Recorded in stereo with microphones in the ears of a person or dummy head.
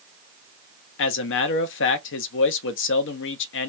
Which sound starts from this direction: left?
A man speaking, at 1.0 s.